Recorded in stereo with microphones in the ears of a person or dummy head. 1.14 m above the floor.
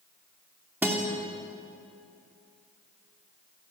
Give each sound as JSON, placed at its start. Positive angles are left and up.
{"t": 0.8, "sound": "a guitar", "side_deg": 0, "distance_m": 3.0}